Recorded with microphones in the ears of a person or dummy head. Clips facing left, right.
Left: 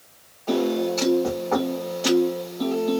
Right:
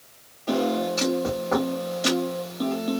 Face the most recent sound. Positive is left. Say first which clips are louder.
# left 2 dB
turn(degrees=-15)  # may be behind; listen again after turning